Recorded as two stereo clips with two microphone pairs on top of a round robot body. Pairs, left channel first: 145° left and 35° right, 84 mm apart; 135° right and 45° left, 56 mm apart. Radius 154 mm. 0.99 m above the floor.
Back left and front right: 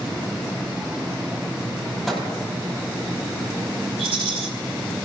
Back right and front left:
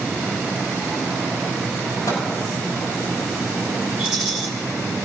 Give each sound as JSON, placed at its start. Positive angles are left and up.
{"t": 2.1, "sound": "a microwave", "azimuth_deg": -125, "distance_m": 6.0}
{"t": 4.0, "sound": "a rattle", "azimuth_deg": -40, "distance_m": 1.9}